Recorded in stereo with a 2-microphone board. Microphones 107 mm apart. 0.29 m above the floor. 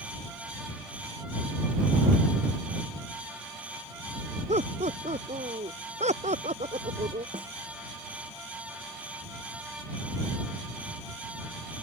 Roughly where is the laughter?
Right.